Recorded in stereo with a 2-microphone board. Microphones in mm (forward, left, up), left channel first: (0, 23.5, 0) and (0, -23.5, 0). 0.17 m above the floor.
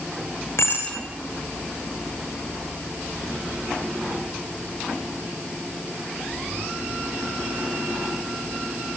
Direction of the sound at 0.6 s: 65° left (ahead or behind).